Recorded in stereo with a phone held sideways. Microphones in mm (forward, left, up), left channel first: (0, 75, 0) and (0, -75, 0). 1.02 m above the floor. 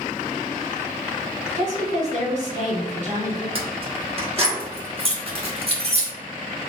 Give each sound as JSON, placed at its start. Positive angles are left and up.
{"t": 1.6, "sound": "a woman speaking", "side_deg": -55, "distance_m": 1.7}
{"t": 3.5, "sound": "keys jangling", "side_deg": -40, "distance_m": 1.1}